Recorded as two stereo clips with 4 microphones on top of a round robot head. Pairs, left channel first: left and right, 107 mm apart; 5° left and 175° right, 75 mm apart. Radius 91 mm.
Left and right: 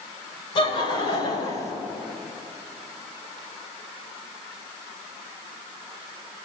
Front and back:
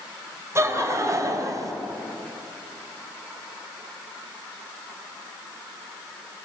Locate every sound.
0.6 s laughter: 135° left, 4 m; by 1.7 s 150° left, 3 m